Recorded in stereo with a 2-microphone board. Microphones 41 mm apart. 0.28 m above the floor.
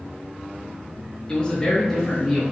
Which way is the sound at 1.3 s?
25° left (ahead or behind).